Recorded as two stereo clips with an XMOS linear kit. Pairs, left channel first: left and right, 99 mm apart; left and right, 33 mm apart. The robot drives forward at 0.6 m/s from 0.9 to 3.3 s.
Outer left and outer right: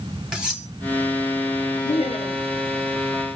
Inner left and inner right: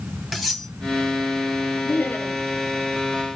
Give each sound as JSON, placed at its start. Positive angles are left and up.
{"t": 0.3, "sound": "cutlery clinking", "side_deg": -5, "distance_m": 1.5}
{"t": 1.9, "sound": "laughter", "side_deg": 70, "distance_m": 1.1}